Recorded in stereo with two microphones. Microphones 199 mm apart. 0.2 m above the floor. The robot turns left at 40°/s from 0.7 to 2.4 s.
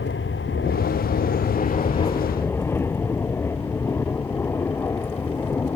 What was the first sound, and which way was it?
An aircraft, 80° left.